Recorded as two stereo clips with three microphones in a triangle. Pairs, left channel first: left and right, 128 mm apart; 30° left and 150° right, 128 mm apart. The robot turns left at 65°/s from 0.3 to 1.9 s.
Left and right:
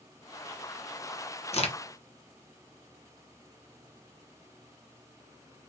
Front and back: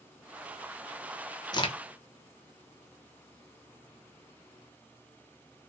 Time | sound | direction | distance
1.5 | a crack | 80° left | 0.9 m